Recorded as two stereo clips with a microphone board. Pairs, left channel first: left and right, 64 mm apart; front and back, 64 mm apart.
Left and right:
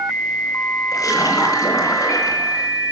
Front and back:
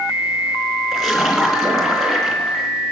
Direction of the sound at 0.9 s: 90° left.